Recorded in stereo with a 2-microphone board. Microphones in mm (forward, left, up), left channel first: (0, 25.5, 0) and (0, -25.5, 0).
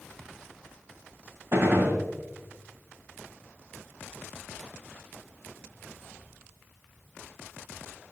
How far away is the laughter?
I don't hear laughter.